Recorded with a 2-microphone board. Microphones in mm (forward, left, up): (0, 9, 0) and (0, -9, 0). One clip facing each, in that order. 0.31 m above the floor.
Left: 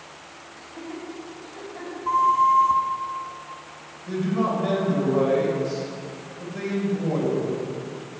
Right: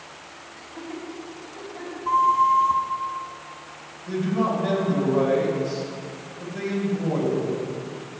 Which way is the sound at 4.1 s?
10° left (ahead or behind).